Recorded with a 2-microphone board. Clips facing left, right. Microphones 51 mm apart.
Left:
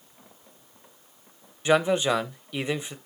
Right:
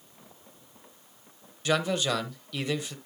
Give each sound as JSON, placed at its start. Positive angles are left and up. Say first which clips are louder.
{"t": 1.6, "sound": "a man speaking", "louder": "left 5 dB", "side_deg": 25, "distance_m": 0.9}